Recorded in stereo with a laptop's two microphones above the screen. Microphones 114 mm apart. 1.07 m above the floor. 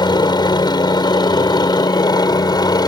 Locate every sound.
0.0 s a helicopter: 40° left (ahead or behind); by 2.9 s 35° left (ahead or behind)